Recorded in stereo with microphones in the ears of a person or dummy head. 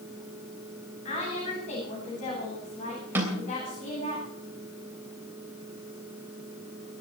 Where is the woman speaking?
40° left (ahead or behind), 9.5 m.